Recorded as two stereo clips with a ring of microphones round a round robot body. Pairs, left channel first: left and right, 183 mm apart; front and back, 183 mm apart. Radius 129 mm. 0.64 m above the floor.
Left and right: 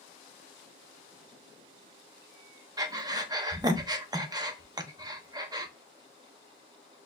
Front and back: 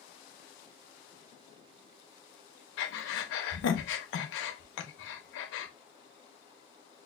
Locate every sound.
2.8 s breathing: 20° right, 0.6 m